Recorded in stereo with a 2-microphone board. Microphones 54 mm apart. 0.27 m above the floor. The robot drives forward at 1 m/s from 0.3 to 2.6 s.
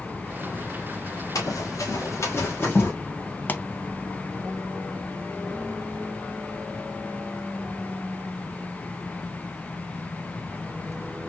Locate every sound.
1.4 s running footsteps: 85° left, 3 m; by 2.9 s 35° left (ahead or behind), 3 m
3.5 s a pop: 35° left (ahead or behind), 0.6 m